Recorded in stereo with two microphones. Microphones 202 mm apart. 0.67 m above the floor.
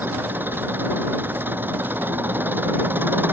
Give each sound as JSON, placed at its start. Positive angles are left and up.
{"t": 0.0, "sound": "an engine running", "side_deg": -10}